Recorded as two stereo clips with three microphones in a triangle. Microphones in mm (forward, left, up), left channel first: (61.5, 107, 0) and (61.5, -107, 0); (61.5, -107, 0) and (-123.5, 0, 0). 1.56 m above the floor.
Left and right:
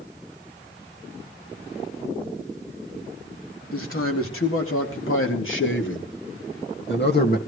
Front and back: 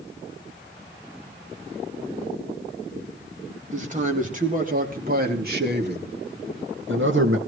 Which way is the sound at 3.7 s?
95° left.